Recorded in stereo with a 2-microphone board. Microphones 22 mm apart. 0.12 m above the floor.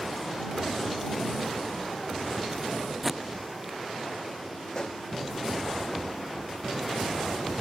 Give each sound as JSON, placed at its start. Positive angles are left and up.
{"t": 3.0, "sound": "tape being pulled", "side_deg": -10}
{"t": 4.7, "sound": "a pop", "side_deg": 40}